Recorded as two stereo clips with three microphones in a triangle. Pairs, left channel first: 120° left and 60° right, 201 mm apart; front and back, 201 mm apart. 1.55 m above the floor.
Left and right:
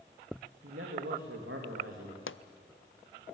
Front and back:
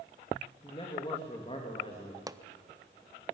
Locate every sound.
0.6 s a man speaking: 60° right, 3 m
2.3 s a pop: 110° left, 0.6 m